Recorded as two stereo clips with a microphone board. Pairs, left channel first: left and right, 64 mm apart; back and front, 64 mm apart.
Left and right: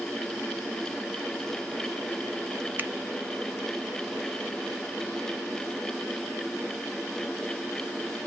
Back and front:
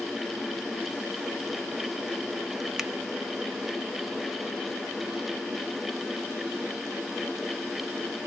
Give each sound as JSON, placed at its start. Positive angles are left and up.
{"t": 2.8, "sound": "a finger snap", "azimuth_deg": -75, "distance_m": 0.8}